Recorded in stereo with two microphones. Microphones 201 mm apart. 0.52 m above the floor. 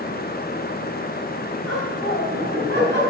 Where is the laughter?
70° right (ahead or behind), 4 m; by 3.0 s 65° right (ahead or behind), 5 m.